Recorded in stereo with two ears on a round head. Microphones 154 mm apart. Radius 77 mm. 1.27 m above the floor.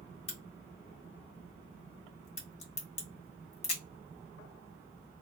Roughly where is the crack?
Left.